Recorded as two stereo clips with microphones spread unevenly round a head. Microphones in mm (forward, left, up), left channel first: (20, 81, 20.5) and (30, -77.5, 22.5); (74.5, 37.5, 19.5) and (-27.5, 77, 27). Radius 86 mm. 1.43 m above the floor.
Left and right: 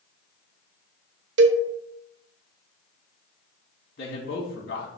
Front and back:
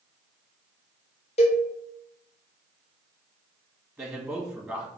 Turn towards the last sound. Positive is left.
turn(degrees=90)